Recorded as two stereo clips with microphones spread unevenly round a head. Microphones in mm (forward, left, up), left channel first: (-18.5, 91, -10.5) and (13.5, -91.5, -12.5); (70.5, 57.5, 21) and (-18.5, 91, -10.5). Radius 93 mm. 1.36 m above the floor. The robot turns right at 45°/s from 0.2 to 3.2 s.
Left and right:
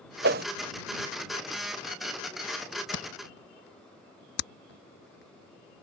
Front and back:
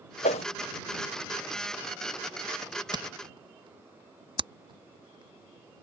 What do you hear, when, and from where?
0.2 s a whoosh: 55° right; by 0.5 s 45° right
2.9 s a camera shutter: 120° left; by 5.7 s 130° left